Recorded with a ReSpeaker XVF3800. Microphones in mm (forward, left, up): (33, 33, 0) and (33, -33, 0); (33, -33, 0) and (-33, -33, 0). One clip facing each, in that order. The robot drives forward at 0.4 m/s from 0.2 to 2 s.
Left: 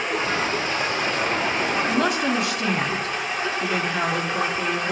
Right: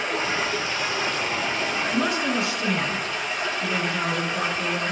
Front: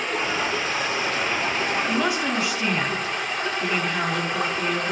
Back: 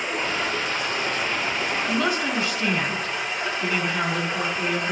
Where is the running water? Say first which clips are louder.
Left 2 dB, front 1 dB; 25° left, 4 m.